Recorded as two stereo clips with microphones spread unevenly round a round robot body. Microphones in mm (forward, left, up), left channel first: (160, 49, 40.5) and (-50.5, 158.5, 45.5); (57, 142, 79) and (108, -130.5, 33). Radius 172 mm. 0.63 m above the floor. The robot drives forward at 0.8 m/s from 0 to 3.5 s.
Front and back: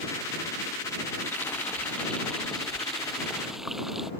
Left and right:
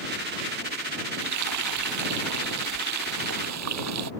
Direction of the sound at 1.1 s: 110° right.